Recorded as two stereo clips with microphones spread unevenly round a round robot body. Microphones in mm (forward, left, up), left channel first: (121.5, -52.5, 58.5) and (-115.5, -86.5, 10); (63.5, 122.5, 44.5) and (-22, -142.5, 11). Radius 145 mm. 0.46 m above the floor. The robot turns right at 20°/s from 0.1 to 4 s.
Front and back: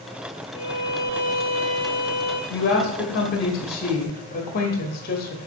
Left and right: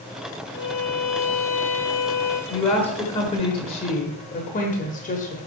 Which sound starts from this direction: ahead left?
A violin, at 0.5 s.